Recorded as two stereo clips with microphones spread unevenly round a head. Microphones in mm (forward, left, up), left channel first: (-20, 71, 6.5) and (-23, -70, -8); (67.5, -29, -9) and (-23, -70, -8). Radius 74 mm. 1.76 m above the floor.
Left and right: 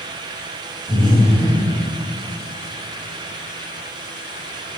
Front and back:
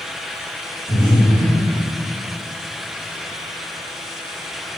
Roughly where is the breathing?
Ahead left.